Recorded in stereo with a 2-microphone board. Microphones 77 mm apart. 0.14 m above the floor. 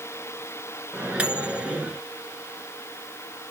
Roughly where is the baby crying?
No baby crying in this recording.